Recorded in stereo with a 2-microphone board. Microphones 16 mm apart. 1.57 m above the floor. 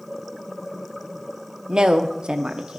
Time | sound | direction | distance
1.7 | a woman speaking | 60° right (ahead or behind) | 0.7 m